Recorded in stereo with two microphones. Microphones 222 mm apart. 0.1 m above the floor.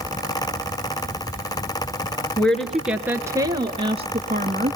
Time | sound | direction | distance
2.4 | a woman speaking | 5° left (ahead or behind) | 1.5 m